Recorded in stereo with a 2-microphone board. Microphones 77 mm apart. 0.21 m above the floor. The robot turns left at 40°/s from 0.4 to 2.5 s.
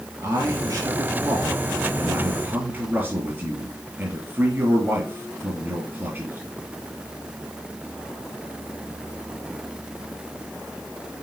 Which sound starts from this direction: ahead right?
A man speaking, at 0.2 s.